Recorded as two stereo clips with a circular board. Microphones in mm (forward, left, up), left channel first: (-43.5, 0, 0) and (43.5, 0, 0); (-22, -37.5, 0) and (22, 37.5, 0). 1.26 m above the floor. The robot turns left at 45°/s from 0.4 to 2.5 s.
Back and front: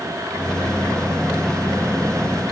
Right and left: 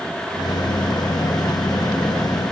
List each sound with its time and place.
Only background noise.